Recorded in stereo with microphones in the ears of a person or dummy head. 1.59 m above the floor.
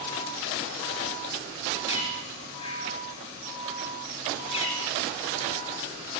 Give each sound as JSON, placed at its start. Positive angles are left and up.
{"t": 1.9, "sound": "a bird", "side_deg": 30, "distance_m": 4.5}